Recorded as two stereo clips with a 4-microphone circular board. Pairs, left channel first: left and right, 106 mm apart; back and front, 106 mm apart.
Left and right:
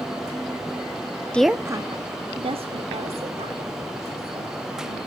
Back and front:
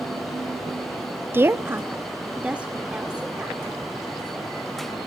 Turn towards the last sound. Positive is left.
turn(degrees=-85)